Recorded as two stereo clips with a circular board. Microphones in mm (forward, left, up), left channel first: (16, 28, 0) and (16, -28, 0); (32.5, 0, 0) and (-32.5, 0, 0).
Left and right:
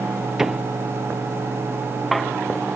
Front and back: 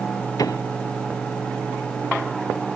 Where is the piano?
5° right.